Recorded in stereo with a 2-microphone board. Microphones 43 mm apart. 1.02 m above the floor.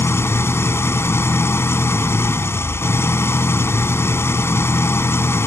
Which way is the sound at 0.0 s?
85° left.